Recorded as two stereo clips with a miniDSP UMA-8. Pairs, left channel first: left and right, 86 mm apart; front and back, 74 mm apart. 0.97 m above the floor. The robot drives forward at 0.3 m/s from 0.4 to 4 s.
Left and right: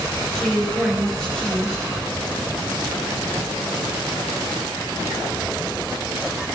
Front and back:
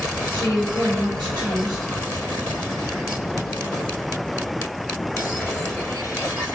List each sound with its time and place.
0.3 s a woman speaking: 175° left, 2 m